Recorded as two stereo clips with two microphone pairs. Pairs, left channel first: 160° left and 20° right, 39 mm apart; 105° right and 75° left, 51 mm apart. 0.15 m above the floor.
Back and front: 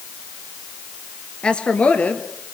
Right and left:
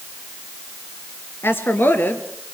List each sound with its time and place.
1.4 s a woman speaking: 135° right, 2.5 m; by 2.5 s 160° right, 3.5 m